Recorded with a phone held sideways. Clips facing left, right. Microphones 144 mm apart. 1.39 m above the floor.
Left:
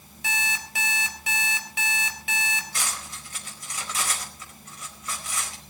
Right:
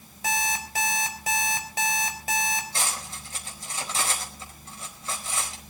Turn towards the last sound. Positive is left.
turn(degrees=-30)  # may be behind; listen again after turning